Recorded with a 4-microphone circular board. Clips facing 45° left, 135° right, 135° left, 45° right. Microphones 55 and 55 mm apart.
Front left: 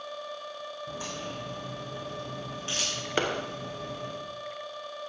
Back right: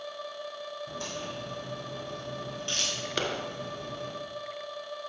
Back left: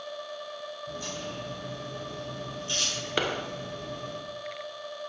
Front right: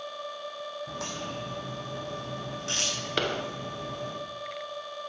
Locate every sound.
0.9 s a crack: 40° right, 6.5 m
3.2 s a clap: 65° left, 1.0 m